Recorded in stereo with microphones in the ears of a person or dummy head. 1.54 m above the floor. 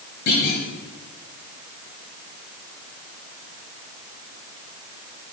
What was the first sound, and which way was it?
A clunk, 35° left (ahead or behind).